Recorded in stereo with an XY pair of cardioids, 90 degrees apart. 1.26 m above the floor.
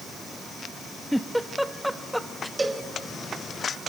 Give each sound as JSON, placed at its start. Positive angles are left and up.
{"t": 1.1, "sound": "a giggle", "azimuth_deg": 0, "distance_m": 1.1}
{"t": 2.6, "sound": "a cowbell", "azimuth_deg": -25, "distance_m": 2.5}